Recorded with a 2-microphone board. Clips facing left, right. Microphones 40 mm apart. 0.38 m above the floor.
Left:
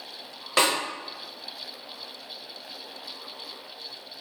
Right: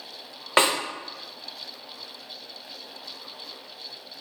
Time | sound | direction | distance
0.6 | a snare drum | 30° right (ahead or behind) | 0.7 m